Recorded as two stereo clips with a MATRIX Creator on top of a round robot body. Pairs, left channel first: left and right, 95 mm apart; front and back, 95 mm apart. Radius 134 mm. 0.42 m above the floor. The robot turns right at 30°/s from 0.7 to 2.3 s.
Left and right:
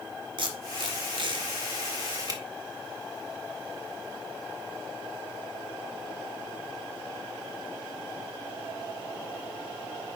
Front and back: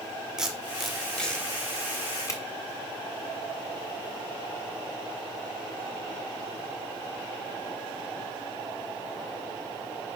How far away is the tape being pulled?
About 2 m.